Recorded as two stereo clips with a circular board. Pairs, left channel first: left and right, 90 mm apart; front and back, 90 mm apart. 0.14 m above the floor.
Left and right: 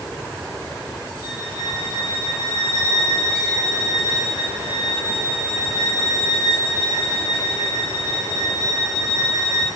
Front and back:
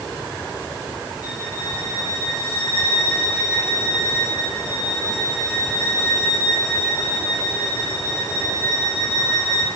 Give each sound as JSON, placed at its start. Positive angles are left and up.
{"t": 1.2, "sound": "a violin", "azimuth_deg": 100, "distance_m": 5.5}